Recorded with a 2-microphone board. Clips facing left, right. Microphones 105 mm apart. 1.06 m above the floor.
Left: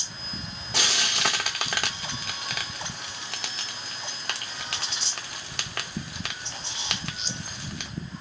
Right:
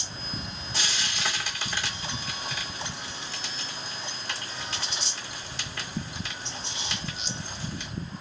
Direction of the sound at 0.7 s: 70° left (ahead or behind).